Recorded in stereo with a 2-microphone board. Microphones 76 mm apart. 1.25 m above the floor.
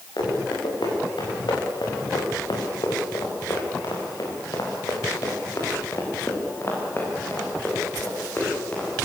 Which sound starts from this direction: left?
Running footsteps, at 0.2 s.